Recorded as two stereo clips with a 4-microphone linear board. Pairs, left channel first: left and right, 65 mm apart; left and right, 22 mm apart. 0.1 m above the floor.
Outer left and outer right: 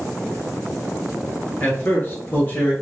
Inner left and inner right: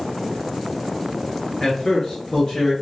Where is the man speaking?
30° left (ahead or behind), 1.7 m.